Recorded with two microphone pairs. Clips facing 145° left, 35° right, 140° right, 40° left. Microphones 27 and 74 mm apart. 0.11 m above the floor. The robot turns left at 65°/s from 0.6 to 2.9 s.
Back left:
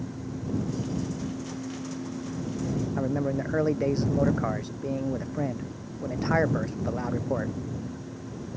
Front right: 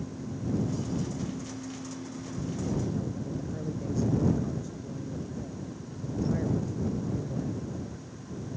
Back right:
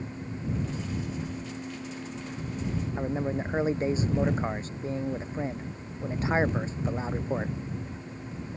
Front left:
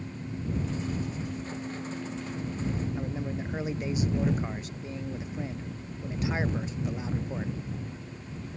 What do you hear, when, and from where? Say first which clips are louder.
3.0 s a man speaking: back left 7 dB, back right 4 dB; 165° left